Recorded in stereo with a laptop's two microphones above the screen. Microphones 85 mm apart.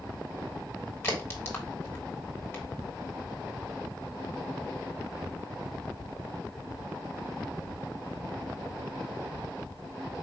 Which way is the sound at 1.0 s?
30° left (ahead or behind).